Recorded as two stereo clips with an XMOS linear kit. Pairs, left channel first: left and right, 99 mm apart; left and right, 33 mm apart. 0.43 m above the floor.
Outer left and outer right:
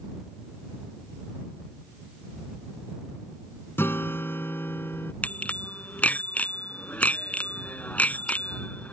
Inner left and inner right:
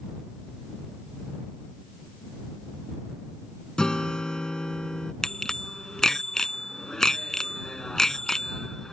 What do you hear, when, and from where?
3.8 s a guitar: 20° left (ahead or behind)
5.2 s a bicycle bell: 15° left (ahead or behind)